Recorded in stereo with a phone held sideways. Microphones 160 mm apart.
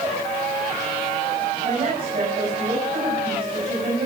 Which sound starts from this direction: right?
A woman speaking, at 1.6 s.